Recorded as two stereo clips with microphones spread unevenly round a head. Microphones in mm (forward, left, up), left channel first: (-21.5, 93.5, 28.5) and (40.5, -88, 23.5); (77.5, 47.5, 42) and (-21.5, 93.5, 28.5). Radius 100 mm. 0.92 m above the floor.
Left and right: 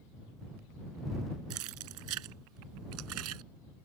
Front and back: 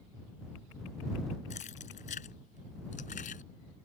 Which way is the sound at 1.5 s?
75° right.